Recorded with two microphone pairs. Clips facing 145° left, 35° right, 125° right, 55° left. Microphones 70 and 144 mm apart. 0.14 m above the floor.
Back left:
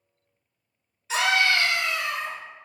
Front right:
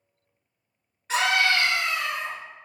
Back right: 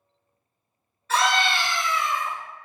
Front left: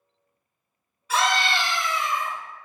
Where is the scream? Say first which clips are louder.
Even, back right 1 dB; 20° right, 1.9 m; by 2.4 s 30° right, 1.4 m.